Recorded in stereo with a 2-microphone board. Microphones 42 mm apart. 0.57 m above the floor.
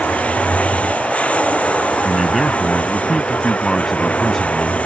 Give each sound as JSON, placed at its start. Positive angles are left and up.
{"t": 0.0, "sound": "running water", "side_deg": 30}
{"t": 2.0, "sound": "a man speaking", "side_deg": 0}